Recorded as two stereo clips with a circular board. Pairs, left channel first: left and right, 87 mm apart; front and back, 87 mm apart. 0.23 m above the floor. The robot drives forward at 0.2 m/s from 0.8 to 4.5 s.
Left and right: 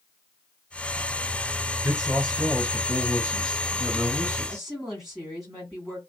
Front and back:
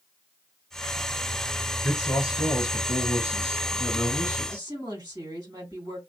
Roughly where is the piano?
No piano in this recording.